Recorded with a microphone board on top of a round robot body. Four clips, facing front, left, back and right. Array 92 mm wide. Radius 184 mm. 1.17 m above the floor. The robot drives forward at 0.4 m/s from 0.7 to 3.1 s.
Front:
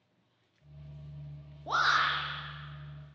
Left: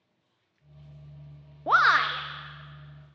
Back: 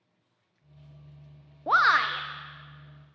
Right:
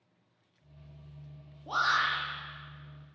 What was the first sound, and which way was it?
A shout, 125° left.